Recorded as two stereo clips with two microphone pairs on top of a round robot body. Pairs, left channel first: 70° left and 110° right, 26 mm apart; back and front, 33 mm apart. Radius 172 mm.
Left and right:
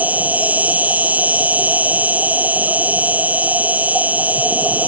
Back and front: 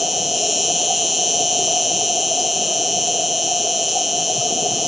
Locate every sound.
0.0 s an insect: 85° right